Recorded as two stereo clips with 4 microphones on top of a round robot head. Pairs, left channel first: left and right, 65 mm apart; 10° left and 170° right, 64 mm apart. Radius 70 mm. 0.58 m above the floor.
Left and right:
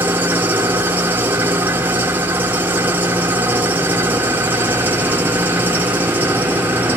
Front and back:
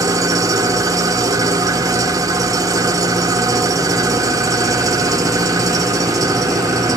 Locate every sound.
0.0 s an engine running: 150° right, 1.7 m